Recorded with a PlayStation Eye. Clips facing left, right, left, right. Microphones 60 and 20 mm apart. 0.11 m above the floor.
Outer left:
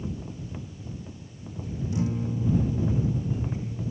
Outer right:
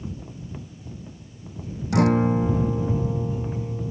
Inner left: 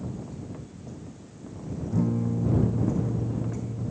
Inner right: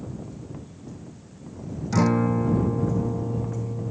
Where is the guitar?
75° right (ahead or behind).